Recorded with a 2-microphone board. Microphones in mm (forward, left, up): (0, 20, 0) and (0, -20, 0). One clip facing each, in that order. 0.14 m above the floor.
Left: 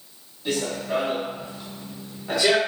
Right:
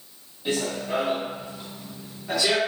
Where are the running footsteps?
25° right (ahead or behind), 1.6 m; by 2.6 s 25° left (ahead or behind), 1.1 m.